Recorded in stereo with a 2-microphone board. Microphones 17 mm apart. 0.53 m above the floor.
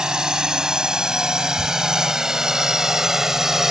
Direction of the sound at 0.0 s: 60° right (ahead or behind).